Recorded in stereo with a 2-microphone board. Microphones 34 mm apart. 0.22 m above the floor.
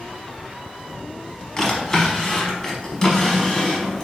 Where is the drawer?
15° left (ahead or behind), 0.8 m.